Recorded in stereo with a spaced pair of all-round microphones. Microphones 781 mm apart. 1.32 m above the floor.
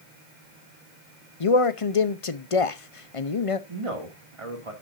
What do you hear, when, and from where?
1.4 s a man speaking: 45° left (ahead or behind), 0.8 m
3.7 s a man speaking: 40° right (ahead or behind), 2.5 m